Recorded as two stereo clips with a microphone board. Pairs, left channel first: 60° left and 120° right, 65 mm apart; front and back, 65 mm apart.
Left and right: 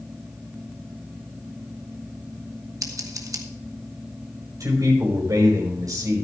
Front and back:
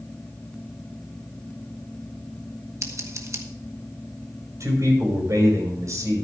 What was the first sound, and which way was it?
Scissors, 145° right.